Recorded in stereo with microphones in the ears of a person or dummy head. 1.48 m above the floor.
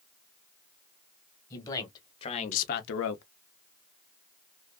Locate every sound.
1.5 s a man speaking: 15° left (ahead or behind), 1.4 m; by 3.2 s 75° left (ahead or behind), 0.6 m